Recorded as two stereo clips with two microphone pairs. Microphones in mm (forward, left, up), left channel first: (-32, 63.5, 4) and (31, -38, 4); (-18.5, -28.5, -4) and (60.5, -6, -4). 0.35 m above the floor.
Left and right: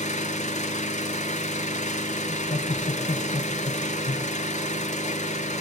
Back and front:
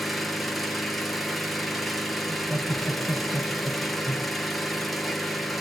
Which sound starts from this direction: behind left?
Laughter, at 2.3 s.